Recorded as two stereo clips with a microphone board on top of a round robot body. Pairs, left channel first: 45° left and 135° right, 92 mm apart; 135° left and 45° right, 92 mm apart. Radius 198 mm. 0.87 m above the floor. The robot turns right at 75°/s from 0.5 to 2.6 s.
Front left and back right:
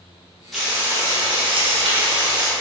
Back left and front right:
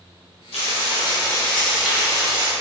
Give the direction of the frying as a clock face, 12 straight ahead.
8 o'clock.